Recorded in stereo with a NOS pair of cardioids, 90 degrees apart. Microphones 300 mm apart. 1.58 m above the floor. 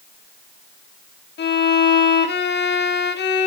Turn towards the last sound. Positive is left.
turn(degrees=40)